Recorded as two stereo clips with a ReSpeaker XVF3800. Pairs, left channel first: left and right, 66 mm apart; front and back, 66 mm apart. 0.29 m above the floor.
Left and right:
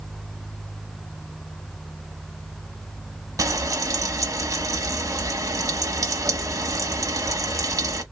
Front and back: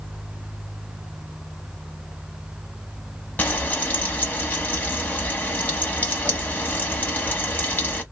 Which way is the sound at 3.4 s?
65° right.